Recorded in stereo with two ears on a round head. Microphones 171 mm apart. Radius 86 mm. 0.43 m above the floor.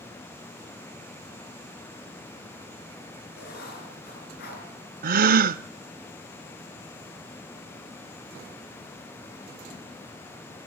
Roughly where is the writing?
Left.